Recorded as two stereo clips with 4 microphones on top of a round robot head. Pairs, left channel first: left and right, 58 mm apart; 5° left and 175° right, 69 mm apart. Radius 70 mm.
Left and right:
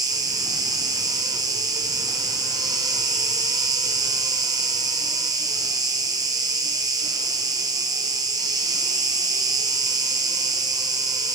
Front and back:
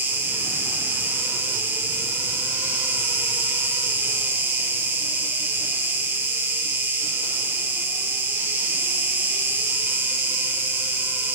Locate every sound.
0.0 s an insect: 110° right, 1.1 m